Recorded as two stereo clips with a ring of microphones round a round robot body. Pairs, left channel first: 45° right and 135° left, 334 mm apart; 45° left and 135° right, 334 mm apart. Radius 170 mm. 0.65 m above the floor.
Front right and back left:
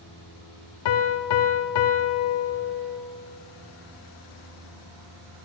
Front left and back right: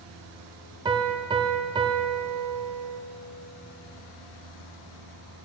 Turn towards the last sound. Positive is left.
turn(degrees=-55)